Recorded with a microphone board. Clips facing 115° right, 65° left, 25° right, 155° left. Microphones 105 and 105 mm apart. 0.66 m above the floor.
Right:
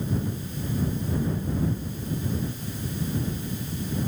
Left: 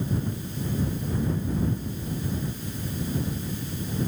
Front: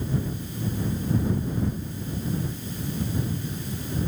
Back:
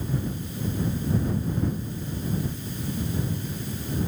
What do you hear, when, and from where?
Only background noise.